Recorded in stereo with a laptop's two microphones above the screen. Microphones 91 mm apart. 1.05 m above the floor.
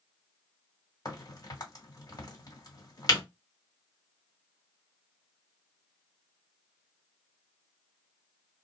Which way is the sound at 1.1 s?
45° left (ahead or behind).